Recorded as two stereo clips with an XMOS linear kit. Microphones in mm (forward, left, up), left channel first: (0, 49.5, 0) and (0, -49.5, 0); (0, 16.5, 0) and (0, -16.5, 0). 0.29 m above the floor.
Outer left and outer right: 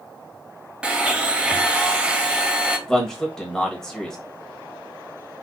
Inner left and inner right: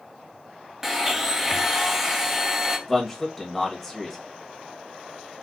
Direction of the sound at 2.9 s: 5° left (ahead or behind).